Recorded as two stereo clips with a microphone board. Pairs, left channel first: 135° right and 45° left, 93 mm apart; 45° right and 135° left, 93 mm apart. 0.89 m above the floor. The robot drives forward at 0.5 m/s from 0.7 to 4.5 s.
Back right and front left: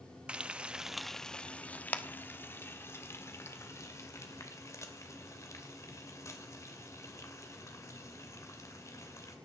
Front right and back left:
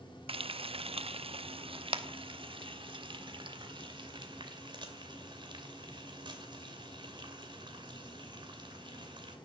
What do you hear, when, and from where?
0.3 s frying: 125° left, 0.6 m; by 9.4 s 170° left, 2.5 m